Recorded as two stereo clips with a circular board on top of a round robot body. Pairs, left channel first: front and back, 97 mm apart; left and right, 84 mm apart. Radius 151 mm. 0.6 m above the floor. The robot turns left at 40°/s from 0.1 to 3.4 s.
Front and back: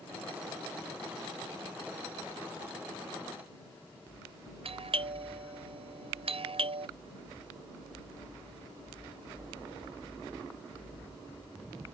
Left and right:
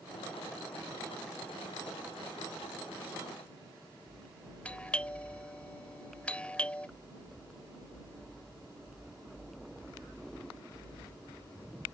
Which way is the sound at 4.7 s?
165° left.